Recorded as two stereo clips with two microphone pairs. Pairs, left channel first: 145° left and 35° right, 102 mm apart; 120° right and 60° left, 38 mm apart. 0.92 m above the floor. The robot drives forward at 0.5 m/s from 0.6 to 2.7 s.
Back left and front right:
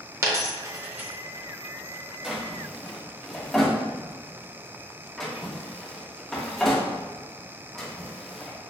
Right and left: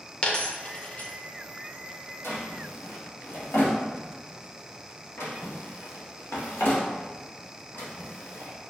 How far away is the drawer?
About 0.9 m.